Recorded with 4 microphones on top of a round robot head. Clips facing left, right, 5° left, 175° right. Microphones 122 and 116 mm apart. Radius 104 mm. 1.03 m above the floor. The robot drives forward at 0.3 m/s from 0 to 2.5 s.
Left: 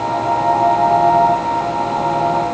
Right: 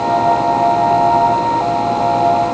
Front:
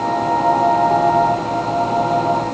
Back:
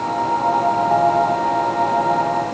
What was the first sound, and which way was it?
Only background noise.